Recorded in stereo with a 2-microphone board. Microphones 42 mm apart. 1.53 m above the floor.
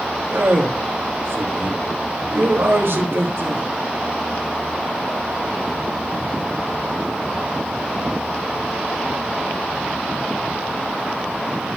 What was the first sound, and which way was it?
A man speaking, 70° right (ahead or behind).